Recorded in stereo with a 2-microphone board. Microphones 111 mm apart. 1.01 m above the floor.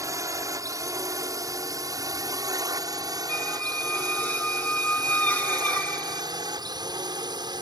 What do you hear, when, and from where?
0.0 s a drone: 25° right (ahead or behind); by 7.6 s 35° right (ahead or behind)
3.3 s a squeak: 15° left (ahead or behind)